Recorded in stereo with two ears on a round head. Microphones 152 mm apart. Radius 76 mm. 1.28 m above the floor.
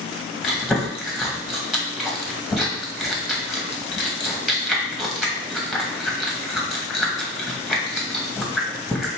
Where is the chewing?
Centre (ahead or behind), 1.7 m.